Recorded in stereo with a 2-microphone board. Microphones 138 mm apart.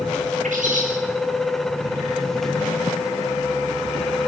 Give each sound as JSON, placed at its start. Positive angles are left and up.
{"t": 0.4, "sound": "a bird", "side_deg": -65, "distance_m": 5.0}